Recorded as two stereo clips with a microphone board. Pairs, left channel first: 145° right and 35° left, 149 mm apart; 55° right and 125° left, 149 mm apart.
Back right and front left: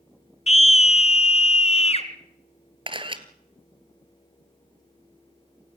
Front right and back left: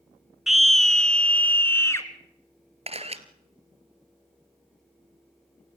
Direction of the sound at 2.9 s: 85° left.